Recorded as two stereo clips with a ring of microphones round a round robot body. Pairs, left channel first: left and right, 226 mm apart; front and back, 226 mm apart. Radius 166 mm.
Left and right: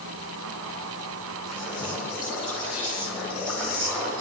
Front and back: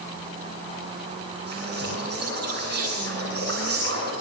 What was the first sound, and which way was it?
Whispering, straight behind.